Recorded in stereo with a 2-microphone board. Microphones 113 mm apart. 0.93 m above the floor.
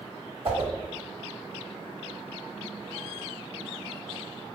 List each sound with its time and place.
0.5 s a whoosh: 55° right (ahead or behind), 1.7 m